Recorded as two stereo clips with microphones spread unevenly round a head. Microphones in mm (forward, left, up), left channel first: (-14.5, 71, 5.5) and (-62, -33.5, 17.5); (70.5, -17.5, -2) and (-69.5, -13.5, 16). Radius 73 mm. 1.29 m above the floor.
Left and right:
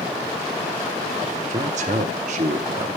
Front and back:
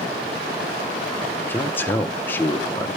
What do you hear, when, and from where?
1.4 s a man speaking: 75° right, 0.9 m